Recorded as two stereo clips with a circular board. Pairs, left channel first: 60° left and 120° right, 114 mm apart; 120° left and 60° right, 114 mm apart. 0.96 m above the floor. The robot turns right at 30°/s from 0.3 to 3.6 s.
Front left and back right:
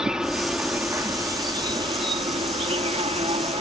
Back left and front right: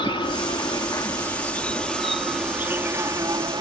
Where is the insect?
155° left; by 3.6 s 105° right.